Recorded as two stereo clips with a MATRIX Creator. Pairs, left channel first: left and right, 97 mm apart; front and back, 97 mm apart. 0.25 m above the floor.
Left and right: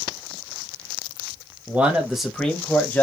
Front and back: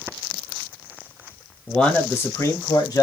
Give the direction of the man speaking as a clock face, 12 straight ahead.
2 o'clock.